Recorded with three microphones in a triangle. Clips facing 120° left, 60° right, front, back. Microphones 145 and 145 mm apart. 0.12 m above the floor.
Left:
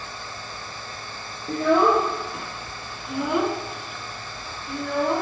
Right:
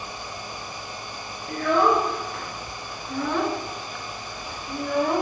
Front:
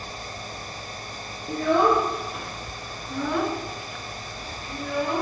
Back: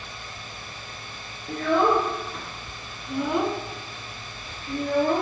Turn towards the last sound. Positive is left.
turn(degrees=-140)